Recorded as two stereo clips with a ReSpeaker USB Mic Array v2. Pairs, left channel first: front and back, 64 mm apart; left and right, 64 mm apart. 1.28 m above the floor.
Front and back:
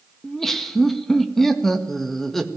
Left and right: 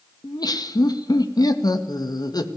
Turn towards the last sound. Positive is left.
turn(degrees=85)